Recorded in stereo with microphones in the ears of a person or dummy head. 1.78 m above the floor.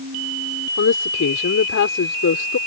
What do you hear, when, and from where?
0.8 s a woman speaking: 60° left (ahead or behind)